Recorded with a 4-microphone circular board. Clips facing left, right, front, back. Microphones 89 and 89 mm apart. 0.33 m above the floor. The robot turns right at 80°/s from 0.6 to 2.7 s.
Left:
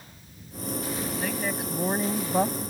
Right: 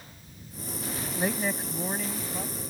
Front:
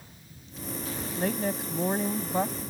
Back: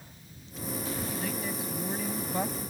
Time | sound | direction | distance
1.2 | a woman speaking | 30° right | ?